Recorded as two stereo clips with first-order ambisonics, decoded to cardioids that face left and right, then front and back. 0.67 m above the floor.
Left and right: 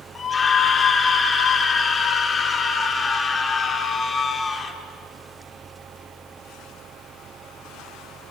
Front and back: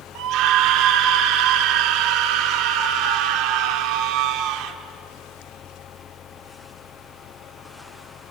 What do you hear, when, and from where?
0.1 s a scream: 160° left, 1.3 m